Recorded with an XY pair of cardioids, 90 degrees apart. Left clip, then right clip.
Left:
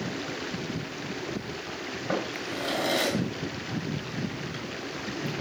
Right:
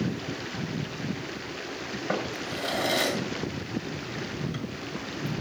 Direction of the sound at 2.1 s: 15° right.